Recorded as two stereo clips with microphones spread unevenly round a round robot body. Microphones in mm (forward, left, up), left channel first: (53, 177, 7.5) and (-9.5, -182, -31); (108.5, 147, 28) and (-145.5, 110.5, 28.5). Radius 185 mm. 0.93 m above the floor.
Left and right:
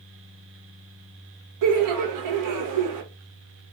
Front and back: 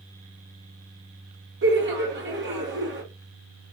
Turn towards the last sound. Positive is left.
turn(degrees=-125)